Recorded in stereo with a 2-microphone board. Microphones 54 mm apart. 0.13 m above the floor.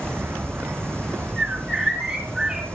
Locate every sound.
0.0 s an insect: 50° right (ahead or behind), 2 m
1.4 s a bird: 5° right (ahead or behind), 6.5 m